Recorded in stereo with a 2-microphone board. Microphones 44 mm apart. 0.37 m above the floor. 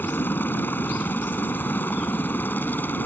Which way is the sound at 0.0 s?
50° left (ahead or behind).